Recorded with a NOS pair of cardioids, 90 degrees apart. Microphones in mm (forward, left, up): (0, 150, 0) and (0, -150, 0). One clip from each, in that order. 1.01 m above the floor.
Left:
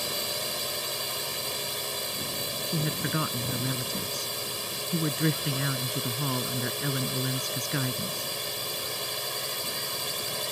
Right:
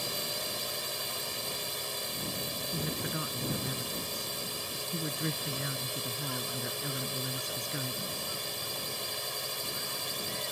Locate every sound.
0.0 s a drone: 30° left
2.7 s a woman speaking: 60° left